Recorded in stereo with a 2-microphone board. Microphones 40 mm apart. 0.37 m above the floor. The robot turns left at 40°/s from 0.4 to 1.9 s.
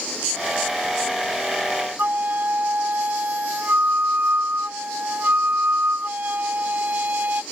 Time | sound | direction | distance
2.0 | a flute | 45° right (ahead or behind) | ?